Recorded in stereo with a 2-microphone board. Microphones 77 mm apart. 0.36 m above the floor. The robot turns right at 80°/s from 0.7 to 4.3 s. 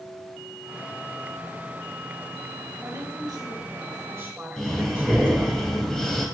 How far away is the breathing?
About 1.6 m.